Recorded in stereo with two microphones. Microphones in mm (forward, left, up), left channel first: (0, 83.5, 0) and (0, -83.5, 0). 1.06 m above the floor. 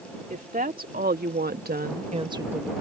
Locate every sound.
0.3 s a woman speaking: 60° right (ahead or behind); by 2.7 s 5° right (ahead or behind)